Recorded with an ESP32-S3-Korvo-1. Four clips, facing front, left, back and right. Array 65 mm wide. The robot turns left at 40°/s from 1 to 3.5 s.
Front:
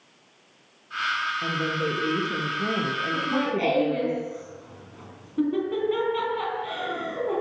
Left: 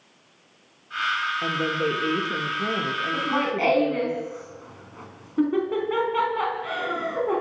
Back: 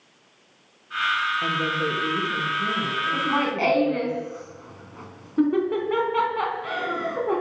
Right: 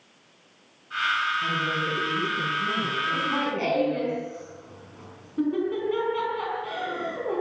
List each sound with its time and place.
1.4 s a woman speaking: 110° left, 8 m; by 4.1 s 30° left, 8 m
3.1 s laughter: 155° left, 4 m; by 7.4 s 140° left, 4 m